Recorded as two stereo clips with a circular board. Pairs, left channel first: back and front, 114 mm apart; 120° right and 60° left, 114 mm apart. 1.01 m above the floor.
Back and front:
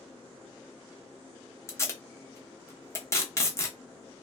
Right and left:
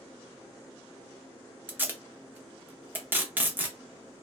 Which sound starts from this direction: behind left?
Tape being pulled, at 1.7 s.